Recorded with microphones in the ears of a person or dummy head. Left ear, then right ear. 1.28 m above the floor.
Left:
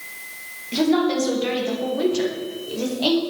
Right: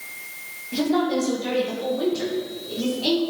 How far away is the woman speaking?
About 2 m.